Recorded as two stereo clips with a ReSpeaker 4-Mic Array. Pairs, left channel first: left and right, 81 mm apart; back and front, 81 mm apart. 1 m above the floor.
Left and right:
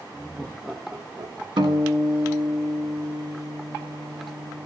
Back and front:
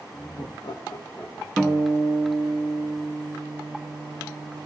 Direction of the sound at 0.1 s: 150° left.